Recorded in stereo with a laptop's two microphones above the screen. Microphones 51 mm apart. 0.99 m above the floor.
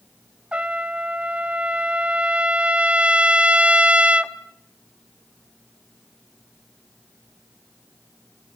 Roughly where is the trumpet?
Right.